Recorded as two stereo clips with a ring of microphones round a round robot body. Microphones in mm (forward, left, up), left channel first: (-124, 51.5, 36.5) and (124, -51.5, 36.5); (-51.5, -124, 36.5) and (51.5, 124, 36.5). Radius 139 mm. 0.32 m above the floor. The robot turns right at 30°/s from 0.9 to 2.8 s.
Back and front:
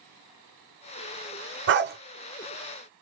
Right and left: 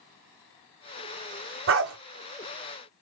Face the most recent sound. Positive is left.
turn(degrees=55)